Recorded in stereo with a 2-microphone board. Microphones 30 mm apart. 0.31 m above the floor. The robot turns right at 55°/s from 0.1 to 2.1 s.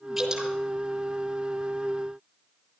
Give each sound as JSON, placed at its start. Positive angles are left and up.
{"t": 0.2, "sound": "dripping", "side_deg": -5, "distance_m": 6.5}